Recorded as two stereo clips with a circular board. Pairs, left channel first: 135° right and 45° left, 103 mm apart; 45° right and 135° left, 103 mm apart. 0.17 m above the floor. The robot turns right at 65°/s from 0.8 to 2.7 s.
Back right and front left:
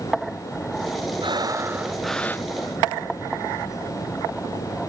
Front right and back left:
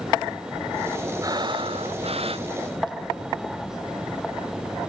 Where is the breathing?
80° left; by 3.0 s 175° left.